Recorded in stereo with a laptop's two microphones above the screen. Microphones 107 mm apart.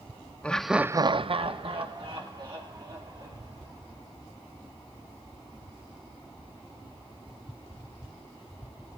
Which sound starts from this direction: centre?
Laughter, at 0.4 s.